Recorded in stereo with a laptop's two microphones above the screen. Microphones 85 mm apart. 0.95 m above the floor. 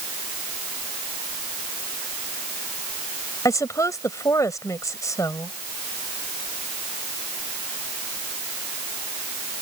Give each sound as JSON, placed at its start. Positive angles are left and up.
{"t": 3.5, "sound": "a woman speaking", "side_deg": 40}